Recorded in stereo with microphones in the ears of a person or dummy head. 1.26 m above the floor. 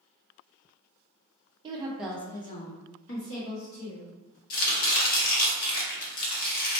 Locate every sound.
1.6 s a woman speaking: 30° right (ahead or behind), 0.6 m; by 4.1 s 70° left (ahead or behind), 1.3 m
4.5 s chopping: 45° left (ahead or behind), 0.9 m